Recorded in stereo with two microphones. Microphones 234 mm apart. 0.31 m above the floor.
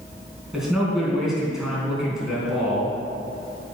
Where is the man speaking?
Centre (ahead or behind), 3.5 m.